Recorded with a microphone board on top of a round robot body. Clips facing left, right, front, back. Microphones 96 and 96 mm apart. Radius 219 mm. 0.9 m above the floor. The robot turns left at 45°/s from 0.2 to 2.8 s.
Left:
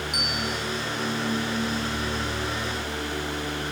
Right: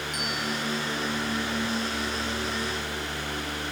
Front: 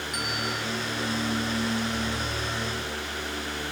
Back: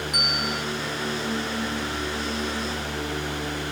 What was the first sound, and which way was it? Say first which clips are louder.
A bell: right 1 dB, even; 110° left.